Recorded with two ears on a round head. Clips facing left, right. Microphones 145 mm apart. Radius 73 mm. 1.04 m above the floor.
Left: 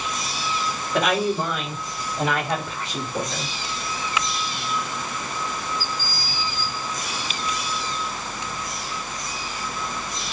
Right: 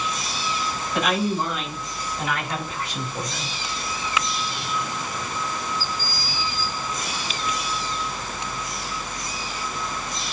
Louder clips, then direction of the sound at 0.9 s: Left 2 dB; 65° left (ahead or behind).